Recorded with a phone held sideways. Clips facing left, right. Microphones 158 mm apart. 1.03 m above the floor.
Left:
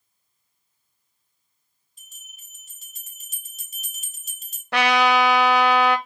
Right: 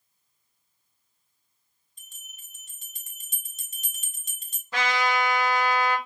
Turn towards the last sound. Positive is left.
turn(degrees=70)  # may be behind; listen again after turning